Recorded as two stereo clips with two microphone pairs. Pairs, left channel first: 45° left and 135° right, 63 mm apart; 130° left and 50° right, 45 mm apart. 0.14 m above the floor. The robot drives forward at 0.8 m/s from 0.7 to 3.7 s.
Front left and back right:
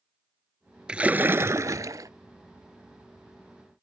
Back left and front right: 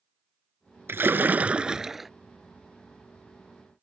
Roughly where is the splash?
Ahead right.